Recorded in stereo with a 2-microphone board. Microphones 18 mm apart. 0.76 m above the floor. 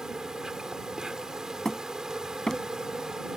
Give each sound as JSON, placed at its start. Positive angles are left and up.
{"t": 0.0, "sound": "an insect", "side_deg": -35}
{"t": 1.6, "sound": "hammering", "side_deg": 25}